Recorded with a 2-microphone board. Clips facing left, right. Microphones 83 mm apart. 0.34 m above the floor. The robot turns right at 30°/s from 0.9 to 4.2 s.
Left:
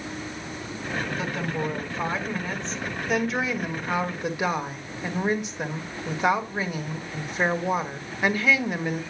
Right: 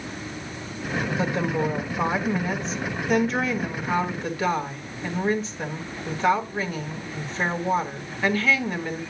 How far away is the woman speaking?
About 1.5 m.